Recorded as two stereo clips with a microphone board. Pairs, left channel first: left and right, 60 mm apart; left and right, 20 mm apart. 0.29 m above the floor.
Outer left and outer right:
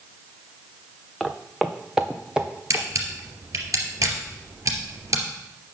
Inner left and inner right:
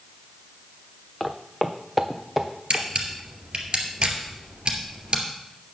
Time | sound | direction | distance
1.2 | footsteps | 5° right (ahead or behind) | 1.1 m
2.7 | a camera shutter | 55° right (ahead or behind) | 2.5 m